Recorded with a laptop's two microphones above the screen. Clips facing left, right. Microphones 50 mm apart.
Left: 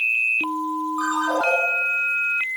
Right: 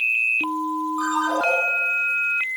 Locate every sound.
1.0 s a ringtone: 15° left (ahead or behind), 6 m